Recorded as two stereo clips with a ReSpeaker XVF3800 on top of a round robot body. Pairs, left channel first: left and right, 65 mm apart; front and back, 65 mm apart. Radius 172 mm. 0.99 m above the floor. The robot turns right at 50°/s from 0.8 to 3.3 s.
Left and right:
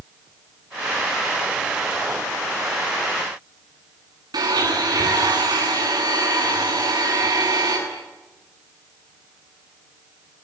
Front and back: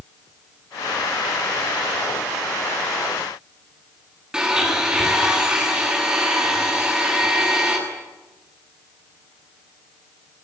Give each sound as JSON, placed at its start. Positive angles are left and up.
{"t": 4.3, "sound": "a blender", "azimuth_deg": -100, "distance_m": 9.0}